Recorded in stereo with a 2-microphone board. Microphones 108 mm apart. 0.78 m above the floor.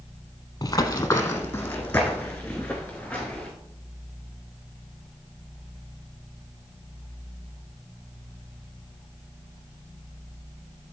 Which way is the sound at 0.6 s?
35° left (ahead or behind).